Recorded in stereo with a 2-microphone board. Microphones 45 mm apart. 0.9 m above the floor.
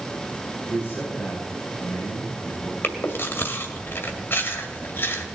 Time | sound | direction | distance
0.7 | a man speaking | 55° left (ahead or behind) | 5.5 m
2.8 | chewing | 55° left (ahead or behind) | 2 m